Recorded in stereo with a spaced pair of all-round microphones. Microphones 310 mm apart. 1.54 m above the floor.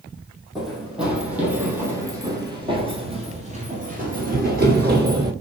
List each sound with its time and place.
0.6 s running footsteps: centre (ahead or behind), 2.5 m; by 5.3 s 35° right (ahead or behind), 1.9 m